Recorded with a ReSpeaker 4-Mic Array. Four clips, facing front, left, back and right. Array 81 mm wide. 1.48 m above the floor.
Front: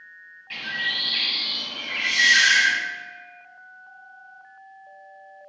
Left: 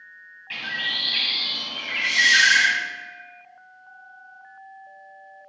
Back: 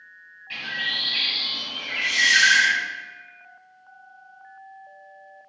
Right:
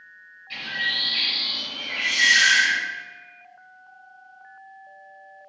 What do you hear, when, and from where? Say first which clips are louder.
0.5 s a bird: right 1 dB, front 1 dB; 85° left, 1.0 m
2.0 s a hiss: left 1 dB, even; 65° right, 1.2 m